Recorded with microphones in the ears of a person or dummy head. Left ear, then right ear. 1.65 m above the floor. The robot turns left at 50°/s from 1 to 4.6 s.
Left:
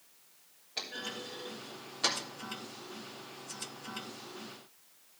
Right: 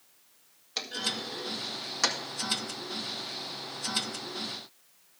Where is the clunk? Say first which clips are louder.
Right 7 dB; 55° right (ahead or behind), 1.8 m.